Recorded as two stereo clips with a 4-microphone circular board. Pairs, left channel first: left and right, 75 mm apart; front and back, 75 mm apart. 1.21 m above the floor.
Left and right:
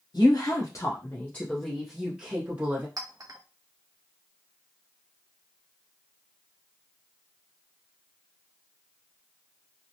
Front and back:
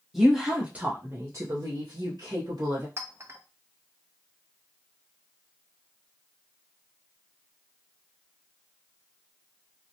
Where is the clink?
125° right, 0.6 m.